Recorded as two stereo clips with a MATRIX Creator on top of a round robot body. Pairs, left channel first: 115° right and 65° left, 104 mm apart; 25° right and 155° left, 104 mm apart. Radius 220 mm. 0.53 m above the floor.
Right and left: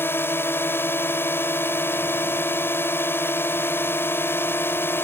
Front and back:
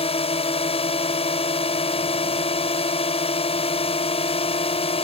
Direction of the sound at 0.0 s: 45° right.